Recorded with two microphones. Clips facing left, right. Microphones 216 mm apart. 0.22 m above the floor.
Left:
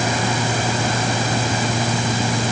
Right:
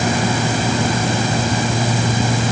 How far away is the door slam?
No door slam in this recording.